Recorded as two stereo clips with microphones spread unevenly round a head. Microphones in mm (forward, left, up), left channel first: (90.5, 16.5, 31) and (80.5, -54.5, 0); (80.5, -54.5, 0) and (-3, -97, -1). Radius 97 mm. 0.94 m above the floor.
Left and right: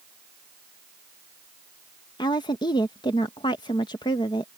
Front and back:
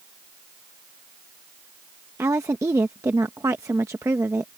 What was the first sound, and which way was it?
A woman speaking, 140° left.